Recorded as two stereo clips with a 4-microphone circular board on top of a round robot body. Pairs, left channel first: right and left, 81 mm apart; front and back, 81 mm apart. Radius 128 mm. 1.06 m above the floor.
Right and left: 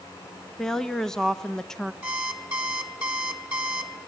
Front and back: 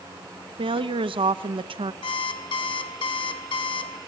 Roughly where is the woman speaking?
Behind.